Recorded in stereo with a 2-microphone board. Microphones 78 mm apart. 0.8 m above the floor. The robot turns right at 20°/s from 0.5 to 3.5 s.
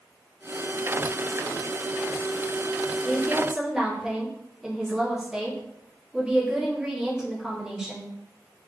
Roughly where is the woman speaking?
Centre.